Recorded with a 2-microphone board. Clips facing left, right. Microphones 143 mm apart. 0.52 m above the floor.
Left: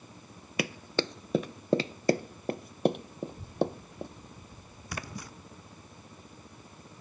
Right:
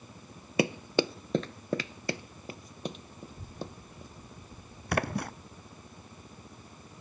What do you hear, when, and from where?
0.6 s running footsteps: 30° right (ahead or behind); by 4.1 s 70° left (ahead or behind)
3.2 s a child speaking: 20° left (ahead or behind)
4.9 s a splash: 65° right (ahead or behind)